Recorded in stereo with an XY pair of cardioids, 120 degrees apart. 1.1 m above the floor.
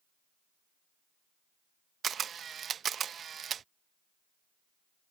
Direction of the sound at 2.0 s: 45° right.